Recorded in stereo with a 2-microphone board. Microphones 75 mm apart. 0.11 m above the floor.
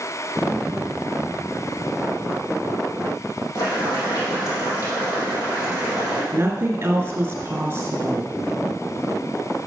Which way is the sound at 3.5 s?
55° left (ahead or behind).